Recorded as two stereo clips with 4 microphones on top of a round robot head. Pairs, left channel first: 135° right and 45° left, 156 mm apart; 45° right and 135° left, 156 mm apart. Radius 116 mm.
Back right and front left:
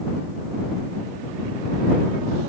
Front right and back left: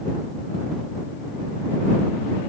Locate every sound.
Only background noise.